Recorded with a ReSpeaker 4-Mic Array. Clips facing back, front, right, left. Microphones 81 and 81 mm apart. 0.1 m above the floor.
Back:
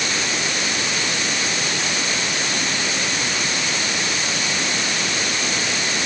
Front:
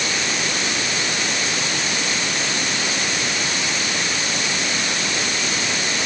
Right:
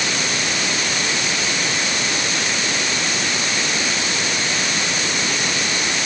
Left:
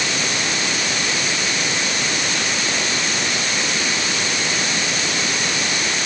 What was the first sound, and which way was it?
Only background noise.